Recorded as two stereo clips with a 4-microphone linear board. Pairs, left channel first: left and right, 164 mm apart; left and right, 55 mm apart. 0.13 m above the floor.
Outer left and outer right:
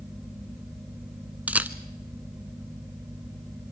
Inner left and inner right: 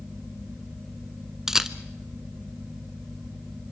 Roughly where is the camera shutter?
Centre.